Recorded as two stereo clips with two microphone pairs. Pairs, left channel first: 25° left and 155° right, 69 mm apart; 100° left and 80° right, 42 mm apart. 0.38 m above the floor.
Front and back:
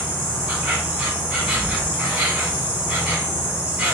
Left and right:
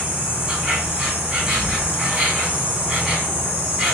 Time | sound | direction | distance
0.0 | an insect | 100° right | 1.2 m